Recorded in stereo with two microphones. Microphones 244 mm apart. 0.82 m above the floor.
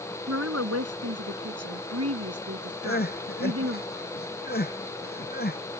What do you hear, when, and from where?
0.3 s a woman speaking: 70° right (ahead or behind); by 3.8 s 65° right (ahead or behind)
2.8 s crying: 40° left (ahead or behind)